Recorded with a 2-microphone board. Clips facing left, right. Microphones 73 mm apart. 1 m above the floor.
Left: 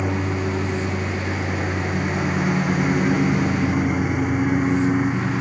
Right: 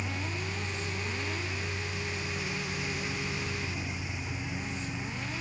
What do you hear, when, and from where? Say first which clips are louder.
0.0 s a lawn mower: left 13 dB; 55° left (ahead or behind)